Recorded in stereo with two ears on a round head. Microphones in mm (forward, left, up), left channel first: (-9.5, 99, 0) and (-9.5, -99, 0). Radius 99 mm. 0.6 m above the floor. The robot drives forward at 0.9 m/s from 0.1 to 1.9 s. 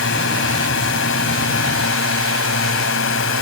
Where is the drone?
60° left (ahead or behind).